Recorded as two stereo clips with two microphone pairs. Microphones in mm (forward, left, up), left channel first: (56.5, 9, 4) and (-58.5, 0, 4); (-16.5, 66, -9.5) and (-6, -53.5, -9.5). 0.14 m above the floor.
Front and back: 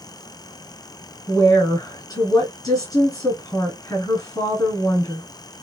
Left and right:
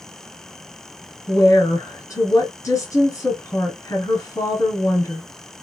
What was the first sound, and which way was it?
A woman speaking, 45° left.